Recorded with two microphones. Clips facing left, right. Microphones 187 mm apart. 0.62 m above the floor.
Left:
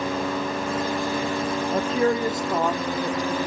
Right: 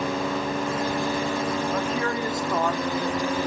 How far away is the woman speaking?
About 0.9 m.